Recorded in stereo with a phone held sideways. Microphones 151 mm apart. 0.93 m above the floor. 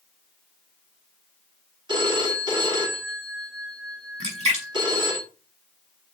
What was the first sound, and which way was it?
A phone ringing, 30° right (ahead or behind).